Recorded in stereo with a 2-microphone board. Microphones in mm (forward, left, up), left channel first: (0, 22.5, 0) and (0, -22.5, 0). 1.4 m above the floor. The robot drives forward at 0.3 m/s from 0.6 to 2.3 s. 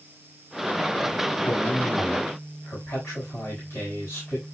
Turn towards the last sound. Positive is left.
turn(degrees=60)  # may be behind; listen again after turning